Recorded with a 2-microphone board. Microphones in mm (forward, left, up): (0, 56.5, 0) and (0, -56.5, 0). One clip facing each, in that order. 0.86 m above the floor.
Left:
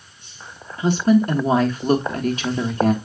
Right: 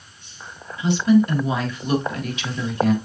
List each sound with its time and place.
0.8 s a woman speaking: 45° left (ahead or behind), 1.2 m